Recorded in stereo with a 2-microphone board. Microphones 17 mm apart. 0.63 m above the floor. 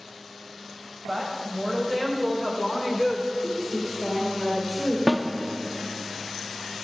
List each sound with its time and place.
1.1 s a woman speaking: 55° right (ahead or behind), 3.5 m; by 3.3 s 15° right (ahead or behind), 2.5 m
3.4 s a woman speaking: 55° right (ahead or behind), 3 m
5.1 s a snare drum: 25° right (ahead or behind), 1.1 m